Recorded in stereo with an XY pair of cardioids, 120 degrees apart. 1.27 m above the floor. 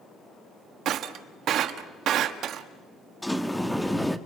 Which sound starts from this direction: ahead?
A sliding door, at 3.2 s.